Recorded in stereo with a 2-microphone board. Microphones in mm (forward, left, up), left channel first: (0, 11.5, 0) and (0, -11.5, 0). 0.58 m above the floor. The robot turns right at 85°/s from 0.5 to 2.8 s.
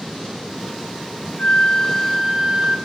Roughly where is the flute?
Behind left.